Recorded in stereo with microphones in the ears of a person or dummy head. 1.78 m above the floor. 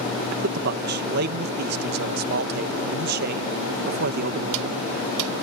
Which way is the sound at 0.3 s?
65° right (ahead or behind).